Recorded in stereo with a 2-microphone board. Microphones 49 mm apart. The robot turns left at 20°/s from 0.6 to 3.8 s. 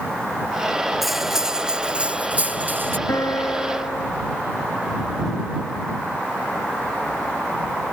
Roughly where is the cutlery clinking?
Ahead.